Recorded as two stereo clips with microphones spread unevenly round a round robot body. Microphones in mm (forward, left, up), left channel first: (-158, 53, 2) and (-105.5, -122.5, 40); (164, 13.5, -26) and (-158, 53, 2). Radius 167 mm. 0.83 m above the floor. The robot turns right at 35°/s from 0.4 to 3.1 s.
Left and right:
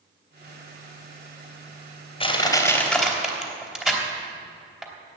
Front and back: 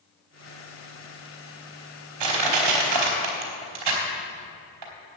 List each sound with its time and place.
2.2 s crushing: 170° left, 3 m; by 4.9 s 160° right, 3 m